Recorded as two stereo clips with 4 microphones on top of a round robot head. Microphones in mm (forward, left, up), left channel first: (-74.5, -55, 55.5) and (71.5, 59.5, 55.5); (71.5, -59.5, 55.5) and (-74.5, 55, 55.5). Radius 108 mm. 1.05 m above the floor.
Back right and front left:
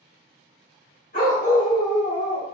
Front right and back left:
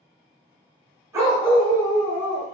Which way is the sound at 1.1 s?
150° right.